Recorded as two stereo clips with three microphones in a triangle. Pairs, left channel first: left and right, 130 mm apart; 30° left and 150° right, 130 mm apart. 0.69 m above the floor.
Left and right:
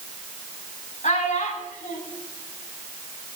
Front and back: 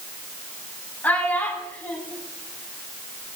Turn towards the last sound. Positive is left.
turn(degrees=105)